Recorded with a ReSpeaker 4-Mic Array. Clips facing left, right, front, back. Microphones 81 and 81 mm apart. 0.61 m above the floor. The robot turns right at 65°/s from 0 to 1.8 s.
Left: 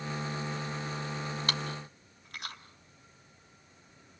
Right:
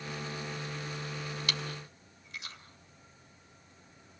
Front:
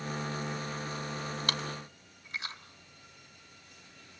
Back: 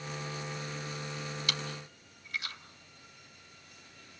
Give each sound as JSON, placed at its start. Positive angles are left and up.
{"t": 1.5, "sound": "chewing", "azimuth_deg": 40, "distance_m": 2.5}